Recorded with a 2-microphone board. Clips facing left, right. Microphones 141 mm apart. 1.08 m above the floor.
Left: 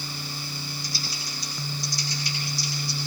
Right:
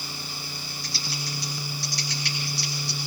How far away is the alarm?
I don't hear an alarm.